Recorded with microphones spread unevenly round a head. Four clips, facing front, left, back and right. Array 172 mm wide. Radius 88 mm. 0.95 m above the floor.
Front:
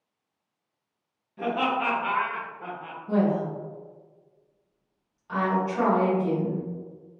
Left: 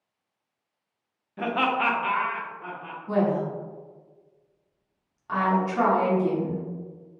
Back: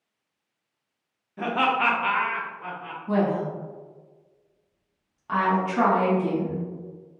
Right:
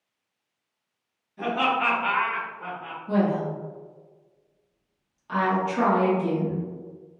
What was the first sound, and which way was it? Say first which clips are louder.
Laughter: even, back 2 dB; 125° left.